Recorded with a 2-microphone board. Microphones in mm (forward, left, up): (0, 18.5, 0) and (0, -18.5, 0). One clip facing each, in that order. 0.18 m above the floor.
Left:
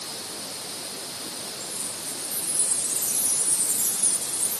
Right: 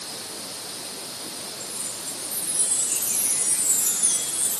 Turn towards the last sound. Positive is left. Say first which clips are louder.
# even
turn(degrees=-70)  # may be behind; listen again after turning